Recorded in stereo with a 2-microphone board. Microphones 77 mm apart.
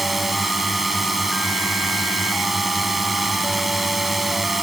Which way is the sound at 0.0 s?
Centre (ahead or behind).